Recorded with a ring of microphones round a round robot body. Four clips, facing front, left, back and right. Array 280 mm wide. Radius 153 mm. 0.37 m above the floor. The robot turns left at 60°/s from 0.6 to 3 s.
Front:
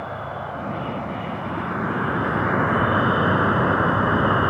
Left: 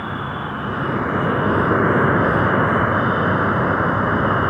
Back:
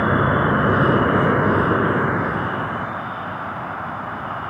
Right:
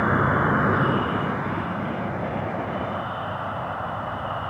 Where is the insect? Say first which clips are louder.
Right 5 dB, back 12 dB; 165° right; by 4.5 s 50° left.